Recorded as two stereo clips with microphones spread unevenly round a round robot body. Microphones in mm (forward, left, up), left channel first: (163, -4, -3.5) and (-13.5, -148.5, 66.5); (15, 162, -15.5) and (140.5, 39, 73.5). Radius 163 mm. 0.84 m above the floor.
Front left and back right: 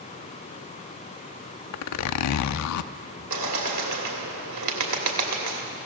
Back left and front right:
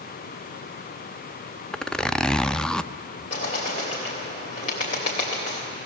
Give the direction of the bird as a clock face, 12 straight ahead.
5 o'clock.